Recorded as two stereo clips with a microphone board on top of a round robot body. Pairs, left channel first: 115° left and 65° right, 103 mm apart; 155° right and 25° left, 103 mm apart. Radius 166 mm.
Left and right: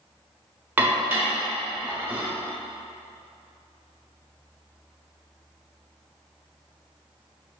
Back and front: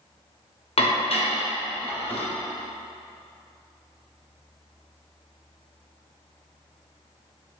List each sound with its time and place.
0.8 s dishes clattering: 140° right, 0.9 m